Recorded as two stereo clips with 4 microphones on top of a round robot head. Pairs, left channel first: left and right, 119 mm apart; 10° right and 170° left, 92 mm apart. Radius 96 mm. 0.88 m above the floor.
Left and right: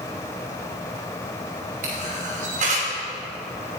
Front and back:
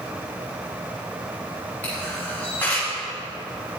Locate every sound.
1.8 s a camera shutter: 85° right, 2.5 m